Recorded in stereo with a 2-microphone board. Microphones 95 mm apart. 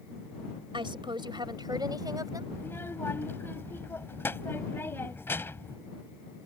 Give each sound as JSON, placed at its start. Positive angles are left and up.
{"t": 0.7, "sound": "a woman speaking", "side_deg": -65}
{"t": 2.5, "sound": "a child speaking", "side_deg": 25}